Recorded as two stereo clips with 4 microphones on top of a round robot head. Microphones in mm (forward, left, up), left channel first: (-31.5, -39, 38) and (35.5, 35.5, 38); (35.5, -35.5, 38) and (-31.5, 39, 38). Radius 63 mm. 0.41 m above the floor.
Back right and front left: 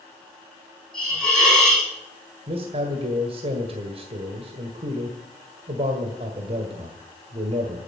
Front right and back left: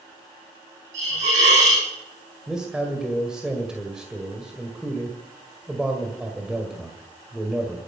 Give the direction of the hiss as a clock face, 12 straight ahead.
7 o'clock.